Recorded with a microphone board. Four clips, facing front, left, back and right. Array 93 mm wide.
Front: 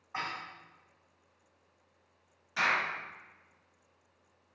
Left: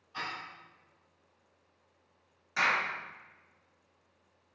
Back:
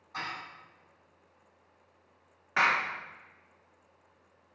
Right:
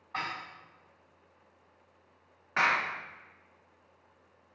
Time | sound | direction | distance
0.1 | dishes clattering | 65° right | 3 m
2.6 | a clap | 140° right | 1.3 m